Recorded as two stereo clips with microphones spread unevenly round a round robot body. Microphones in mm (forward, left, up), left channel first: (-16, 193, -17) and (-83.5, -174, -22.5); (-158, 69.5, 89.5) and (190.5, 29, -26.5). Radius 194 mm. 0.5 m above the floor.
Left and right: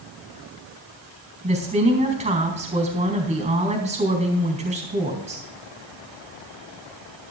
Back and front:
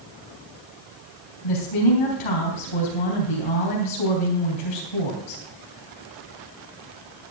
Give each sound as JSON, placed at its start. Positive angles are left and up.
{"t": 1.4, "sound": "a woman speaking", "azimuth_deg": -175, "distance_m": 4.0}